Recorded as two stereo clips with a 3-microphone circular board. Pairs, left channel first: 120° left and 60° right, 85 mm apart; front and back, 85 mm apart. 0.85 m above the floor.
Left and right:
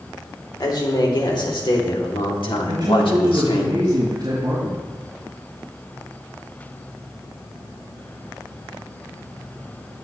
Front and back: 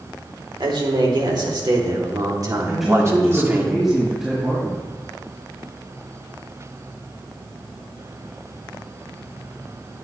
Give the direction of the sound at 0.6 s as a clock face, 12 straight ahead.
7 o'clock.